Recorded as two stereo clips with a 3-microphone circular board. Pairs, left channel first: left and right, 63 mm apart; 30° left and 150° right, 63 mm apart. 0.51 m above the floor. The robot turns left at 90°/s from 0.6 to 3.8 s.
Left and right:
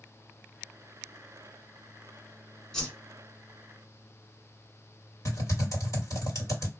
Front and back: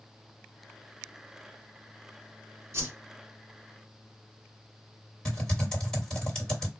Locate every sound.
2.7 s a whoosh: 170° left, 1.3 m; by 2.9 s 155° left, 1.3 m
5.2 s typing on a keyboard: 105° left, 2 m